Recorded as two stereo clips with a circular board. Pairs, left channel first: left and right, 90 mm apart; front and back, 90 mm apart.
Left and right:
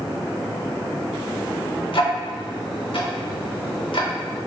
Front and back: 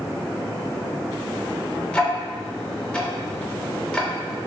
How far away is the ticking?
About 0.5 m.